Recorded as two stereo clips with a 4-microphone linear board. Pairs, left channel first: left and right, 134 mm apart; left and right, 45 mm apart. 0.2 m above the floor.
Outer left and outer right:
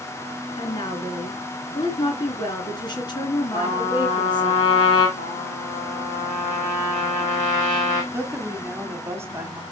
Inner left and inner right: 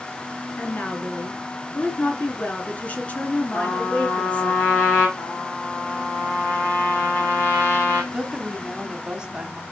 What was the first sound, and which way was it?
A woman speaking, 35° left (ahead or behind).